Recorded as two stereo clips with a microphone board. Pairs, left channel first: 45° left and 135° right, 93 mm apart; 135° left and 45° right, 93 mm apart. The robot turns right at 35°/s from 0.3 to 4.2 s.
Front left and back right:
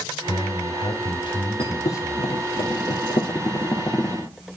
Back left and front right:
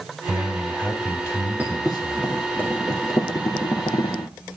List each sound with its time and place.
0.3 s a man speaking: 40° left, 2.5 m; by 2.3 s 110° left, 2.5 m
1.6 s a thud: 25° left, 2 m; by 4.3 s 120° left, 2 m